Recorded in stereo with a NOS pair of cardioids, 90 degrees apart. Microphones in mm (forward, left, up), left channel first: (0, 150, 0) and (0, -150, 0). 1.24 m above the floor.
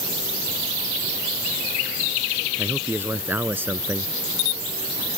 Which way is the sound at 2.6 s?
5° right.